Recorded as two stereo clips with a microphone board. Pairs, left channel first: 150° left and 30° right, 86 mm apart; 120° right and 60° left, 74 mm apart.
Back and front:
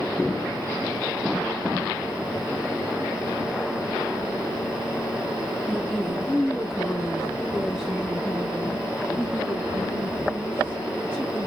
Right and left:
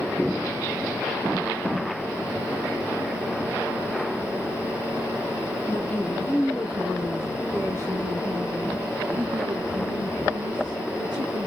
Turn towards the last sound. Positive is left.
turn(degrees=50)